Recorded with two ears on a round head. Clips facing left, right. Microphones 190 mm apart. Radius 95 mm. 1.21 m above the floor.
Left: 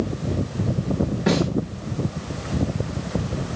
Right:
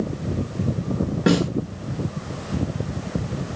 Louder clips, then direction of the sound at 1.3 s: Right 2 dB; 70° right (ahead or behind).